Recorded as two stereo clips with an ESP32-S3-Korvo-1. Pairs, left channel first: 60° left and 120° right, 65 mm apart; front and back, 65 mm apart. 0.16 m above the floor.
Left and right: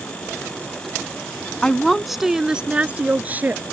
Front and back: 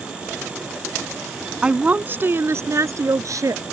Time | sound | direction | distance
1.6 | a woman speaking | 125° left | ?